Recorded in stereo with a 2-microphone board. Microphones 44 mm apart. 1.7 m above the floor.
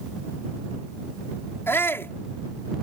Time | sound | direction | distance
1.7 | a shout | 60° left (ahead or behind) | ?